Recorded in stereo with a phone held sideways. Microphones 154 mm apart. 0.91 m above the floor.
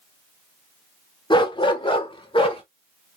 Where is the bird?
I don't hear a bird.